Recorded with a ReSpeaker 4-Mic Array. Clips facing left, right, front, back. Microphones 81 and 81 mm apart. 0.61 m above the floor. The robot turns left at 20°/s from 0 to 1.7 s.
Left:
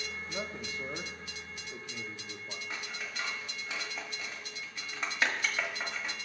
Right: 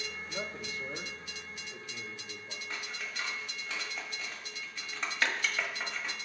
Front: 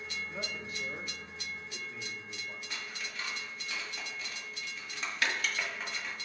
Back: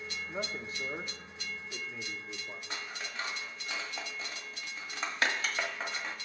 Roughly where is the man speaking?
Behind left.